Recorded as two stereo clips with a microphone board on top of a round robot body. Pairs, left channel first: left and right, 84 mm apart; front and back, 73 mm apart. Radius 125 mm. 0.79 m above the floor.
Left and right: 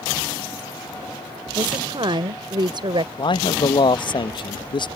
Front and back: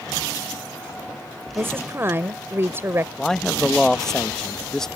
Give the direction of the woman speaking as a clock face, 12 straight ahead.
4 o'clock.